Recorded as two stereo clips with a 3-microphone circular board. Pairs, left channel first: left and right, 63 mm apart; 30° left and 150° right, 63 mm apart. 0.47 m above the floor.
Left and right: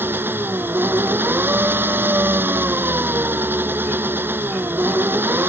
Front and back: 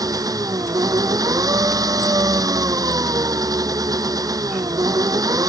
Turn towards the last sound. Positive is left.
turn(degrees=-145)